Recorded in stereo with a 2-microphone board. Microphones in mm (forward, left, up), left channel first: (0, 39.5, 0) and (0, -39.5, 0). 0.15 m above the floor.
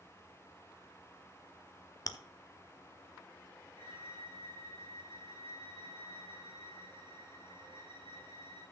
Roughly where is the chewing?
Left.